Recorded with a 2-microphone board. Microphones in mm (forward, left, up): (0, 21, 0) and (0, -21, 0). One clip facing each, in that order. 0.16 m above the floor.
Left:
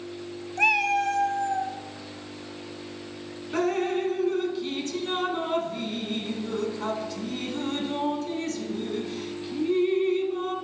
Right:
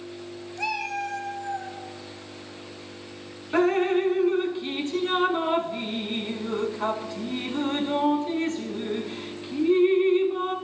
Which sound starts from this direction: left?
A cat meowing, at 0.6 s.